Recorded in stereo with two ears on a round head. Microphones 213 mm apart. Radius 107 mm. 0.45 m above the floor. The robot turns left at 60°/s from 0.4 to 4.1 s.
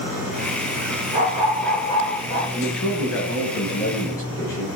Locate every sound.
1.1 s a dog barking: 150° right, 6.5 m; by 2.4 s 130° left, 6.5 m
2.5 s a man speaking: 110° left, 6 m; by 4.7 s 15° left, 6 m